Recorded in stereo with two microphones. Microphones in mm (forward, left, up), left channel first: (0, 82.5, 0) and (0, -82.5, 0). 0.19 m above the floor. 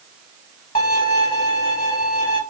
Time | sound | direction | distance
0.8 | a violin | 60° left (ahead or behind) | 0.7 m